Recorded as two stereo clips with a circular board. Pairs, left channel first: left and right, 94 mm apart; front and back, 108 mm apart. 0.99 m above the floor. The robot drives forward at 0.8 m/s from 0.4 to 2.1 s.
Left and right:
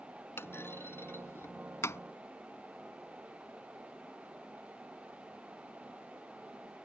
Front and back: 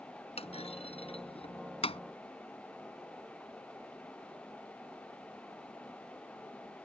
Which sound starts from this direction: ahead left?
A clunk, at 0.4 s.